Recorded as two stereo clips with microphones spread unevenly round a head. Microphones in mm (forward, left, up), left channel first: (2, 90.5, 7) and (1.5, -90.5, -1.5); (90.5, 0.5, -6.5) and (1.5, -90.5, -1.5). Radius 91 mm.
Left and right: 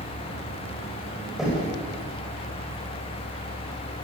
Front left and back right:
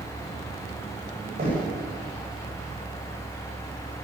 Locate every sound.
1.4 s knocking: straight behind, 8 m